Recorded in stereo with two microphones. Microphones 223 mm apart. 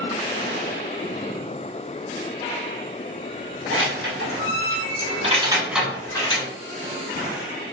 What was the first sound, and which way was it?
Keys jangling, 65° right (ahead or behind).